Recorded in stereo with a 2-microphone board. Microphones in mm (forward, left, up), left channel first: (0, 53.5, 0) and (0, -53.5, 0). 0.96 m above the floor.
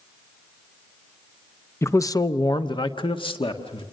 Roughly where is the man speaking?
Left.